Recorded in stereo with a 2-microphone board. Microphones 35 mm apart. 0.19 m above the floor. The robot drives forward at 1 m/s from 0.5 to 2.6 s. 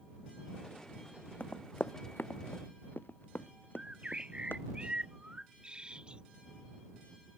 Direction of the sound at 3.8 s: 30° right (ahead or behind).